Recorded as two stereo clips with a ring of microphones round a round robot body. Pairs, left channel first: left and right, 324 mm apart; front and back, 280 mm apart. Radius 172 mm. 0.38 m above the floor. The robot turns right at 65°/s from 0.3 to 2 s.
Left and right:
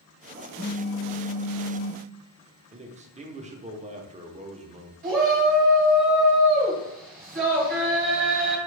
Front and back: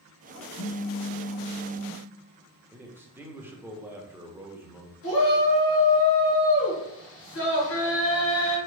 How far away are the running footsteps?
I don't hear running footsteps.